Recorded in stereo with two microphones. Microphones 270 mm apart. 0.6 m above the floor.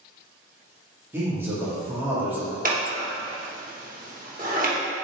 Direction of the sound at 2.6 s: 30° right (ahead or behind).